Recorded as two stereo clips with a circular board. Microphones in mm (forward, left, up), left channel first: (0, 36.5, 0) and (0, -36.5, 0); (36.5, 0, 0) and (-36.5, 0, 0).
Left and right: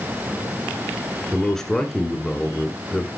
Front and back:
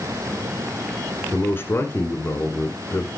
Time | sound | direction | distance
1.3 | a man speaking | 10° left | 1.6 m